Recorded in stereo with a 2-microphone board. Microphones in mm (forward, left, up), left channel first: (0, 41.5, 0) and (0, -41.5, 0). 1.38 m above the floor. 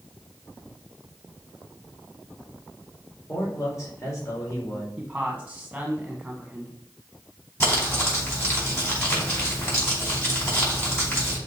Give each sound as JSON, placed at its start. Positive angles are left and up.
{"t": 3.3, "sound": "a man speaking", "side_deg": 35, "distance_m": 3.0}
{"t": 5.0, "sound": "a man speaking", "side_deg": -10, "distance_m": 1.1}
{"t": 7.6, "sound": "crumpling", "side_deg": 30, "distance_m": 4.5}